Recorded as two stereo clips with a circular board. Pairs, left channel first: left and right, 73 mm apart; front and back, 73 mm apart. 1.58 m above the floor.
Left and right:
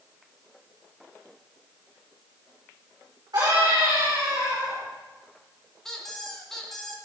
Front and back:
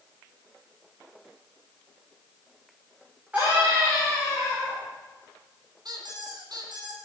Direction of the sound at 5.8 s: 175° left.